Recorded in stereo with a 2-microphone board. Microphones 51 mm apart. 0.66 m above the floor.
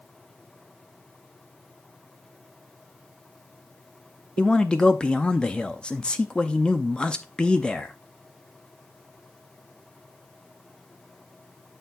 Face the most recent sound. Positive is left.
turn(degrees=15)  # may be behind; listen again after turning